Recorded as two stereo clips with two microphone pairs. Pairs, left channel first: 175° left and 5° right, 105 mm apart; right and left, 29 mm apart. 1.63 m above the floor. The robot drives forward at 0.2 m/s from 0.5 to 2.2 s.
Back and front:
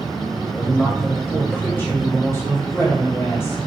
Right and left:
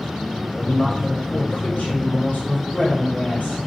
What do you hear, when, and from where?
0.6 s a woman speaking: 110° right, 1.5 m; by 3.6 s 120° right, 1.6 m